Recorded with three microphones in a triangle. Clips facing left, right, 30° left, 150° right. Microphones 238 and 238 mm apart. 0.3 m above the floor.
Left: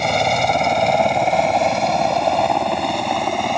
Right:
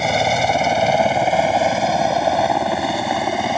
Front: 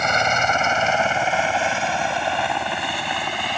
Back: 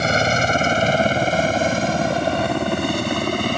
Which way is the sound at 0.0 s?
175° right.